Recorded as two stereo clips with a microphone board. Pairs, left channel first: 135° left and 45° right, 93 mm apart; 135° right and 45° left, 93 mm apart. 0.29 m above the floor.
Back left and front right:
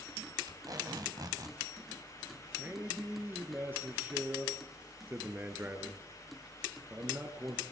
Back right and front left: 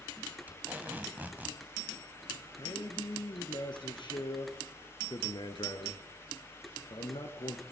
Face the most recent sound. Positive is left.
turn(degrees=-110)